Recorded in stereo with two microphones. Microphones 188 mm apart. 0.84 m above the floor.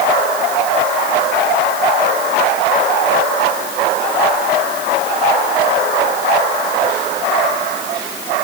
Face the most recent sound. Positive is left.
No sound to turn to.